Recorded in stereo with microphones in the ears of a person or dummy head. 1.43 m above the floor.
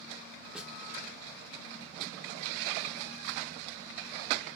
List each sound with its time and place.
0.6 s a snare drum: centre (ahead or behind), 0.6 m